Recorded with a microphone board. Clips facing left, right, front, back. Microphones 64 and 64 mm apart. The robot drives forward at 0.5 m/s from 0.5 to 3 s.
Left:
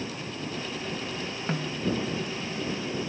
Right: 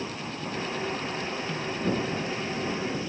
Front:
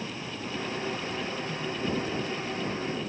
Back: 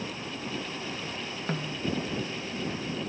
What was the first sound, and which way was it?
A snare drum, 140° left.